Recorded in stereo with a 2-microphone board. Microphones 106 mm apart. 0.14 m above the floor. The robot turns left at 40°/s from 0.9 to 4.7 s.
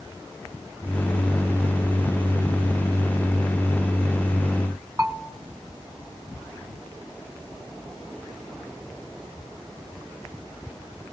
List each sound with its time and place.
5.0 s a bell: 25° right (ahead or behind), 1.4 m